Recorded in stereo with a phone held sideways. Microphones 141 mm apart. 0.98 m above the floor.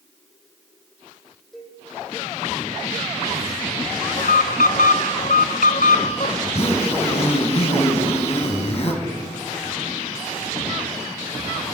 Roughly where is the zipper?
Left.